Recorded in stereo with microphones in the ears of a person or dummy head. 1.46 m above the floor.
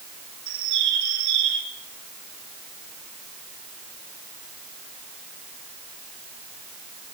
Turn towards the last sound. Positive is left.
turn(degrees=-70)  # may be behind; listen again after turning